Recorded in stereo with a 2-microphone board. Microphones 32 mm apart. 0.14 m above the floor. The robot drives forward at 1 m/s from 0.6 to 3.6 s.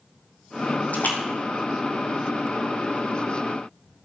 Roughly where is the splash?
Left.